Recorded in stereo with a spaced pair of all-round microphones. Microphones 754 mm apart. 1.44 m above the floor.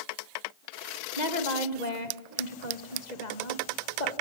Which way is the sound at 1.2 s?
65° left (ahead or behind).